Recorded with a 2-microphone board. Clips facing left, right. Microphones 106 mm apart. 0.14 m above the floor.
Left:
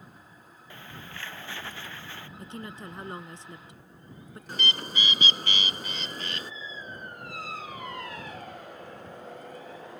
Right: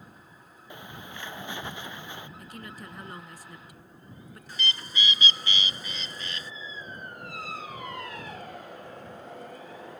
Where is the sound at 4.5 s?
50° left (ahead or behind).